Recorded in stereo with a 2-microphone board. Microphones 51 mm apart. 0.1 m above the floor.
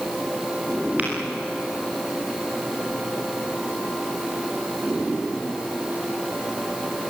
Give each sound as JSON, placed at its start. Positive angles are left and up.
{"t": 1.0, "sound": "tapping", "side_deg": -30, "distance_m": 7.0}